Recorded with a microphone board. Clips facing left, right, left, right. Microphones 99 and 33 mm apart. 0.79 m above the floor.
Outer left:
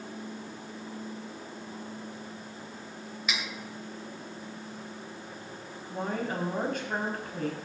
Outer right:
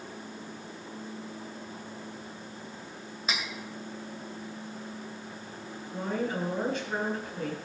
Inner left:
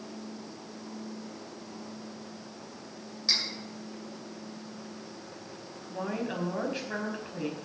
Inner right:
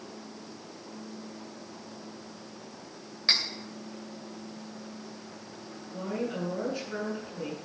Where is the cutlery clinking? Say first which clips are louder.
Outer right 1 dB, inner right 3 dB; 35° right (ahead or behind), 2.5 m.